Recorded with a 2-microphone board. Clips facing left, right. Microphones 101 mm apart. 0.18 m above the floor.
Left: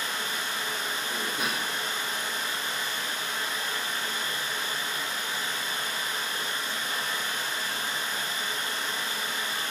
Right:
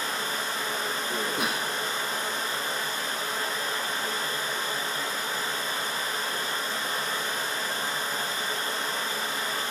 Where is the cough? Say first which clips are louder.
Right 2 dB; 60° right (ahead or behind), 2.5 m.